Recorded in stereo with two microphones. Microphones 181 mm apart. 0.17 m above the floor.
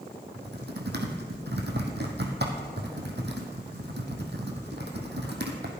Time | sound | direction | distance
0.3 | typing on a keyboard | 75° right (ahead or behind) | 2 m